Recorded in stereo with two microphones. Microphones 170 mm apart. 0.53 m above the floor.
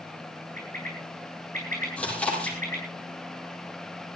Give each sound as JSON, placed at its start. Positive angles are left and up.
{"t": 0.6, "sound": "a bird", "side_deg": -55, "distance_m": 10.0}
{"t": 2.0, "sound": "chewing", "side_deg": 5, "distance_m": 9.5}